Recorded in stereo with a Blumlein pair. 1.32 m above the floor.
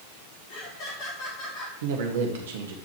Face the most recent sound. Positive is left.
turn(degrees=-60)